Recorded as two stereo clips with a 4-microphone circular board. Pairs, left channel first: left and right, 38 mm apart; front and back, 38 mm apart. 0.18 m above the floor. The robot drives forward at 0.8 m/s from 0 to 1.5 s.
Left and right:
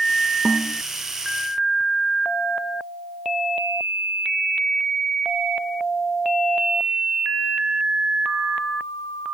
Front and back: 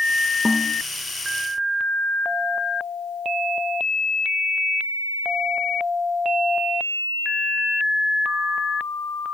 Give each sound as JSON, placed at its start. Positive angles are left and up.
{"t": 0.5, "sound": "a snare drum", "azimuth_deg": 100}